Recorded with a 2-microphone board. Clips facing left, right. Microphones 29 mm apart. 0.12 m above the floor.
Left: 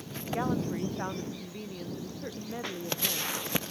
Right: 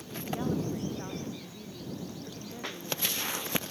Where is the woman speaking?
35° left (ahead or behind).